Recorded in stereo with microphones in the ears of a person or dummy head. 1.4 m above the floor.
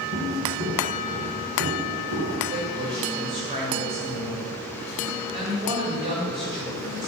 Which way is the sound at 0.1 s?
45° right (ahead or behind).